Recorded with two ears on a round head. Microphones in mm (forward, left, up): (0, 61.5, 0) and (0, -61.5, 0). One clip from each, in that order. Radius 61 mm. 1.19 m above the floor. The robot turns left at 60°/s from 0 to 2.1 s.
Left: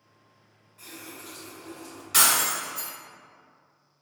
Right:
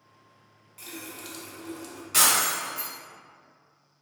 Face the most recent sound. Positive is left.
turn(degrees=20)  # may be behind; listen again after turning